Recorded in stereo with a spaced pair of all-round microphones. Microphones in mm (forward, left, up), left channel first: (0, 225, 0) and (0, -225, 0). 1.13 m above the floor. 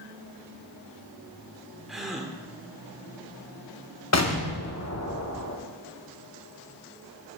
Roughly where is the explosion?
Left.